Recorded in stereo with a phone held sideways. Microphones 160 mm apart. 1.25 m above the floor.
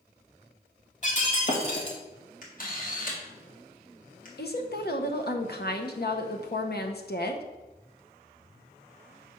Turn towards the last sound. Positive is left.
turn(degrees=70)  # may be behind; listen again after turning